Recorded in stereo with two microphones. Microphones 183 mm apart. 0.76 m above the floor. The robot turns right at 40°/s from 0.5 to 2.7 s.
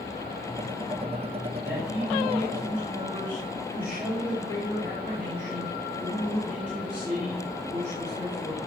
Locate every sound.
1.6 s a man speaking: 55° right, 4 m; by 8.6 s 10° right, 4 m